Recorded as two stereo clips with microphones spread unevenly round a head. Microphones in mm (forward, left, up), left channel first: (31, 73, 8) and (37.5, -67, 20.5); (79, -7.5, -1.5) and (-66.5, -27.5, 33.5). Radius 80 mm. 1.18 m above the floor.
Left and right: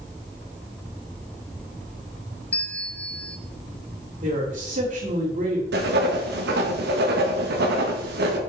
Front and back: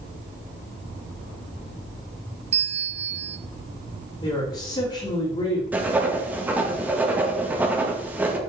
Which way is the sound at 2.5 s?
155° left.